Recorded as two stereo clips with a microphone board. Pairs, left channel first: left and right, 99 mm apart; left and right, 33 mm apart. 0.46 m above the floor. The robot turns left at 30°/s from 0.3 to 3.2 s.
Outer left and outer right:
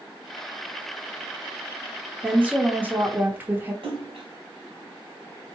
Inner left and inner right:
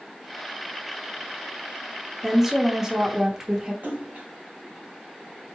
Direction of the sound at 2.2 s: 15° right (ahead or behind).